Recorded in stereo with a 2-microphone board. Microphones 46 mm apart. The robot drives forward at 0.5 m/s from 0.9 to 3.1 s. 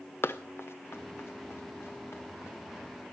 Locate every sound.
0.2 s running footsteps: 60° left (ahead or behind), 0.6 m; by 3.0 s 70° left (ahead or behind), 4.5 m